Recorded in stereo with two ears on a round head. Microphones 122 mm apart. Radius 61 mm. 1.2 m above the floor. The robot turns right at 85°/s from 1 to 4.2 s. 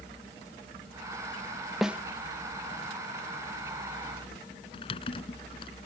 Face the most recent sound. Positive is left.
turn(degrees=40)  # may be behind; listen again after turning